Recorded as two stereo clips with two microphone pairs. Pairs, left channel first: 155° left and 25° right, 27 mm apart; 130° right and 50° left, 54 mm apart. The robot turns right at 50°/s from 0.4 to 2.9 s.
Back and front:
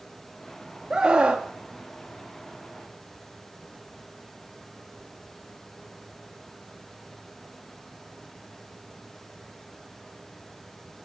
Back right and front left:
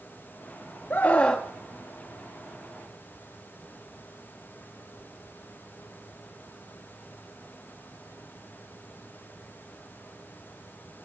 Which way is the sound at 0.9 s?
75° right.